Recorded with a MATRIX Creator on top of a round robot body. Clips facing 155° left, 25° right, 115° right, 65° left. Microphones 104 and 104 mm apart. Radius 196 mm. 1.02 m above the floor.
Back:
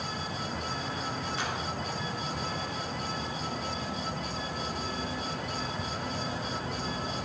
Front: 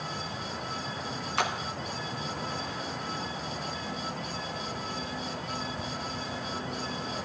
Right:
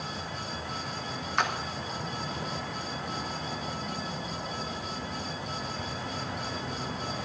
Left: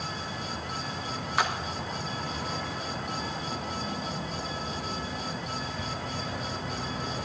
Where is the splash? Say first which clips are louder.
Front 8 dB, left 1 dB; 20° right, 1.4 m.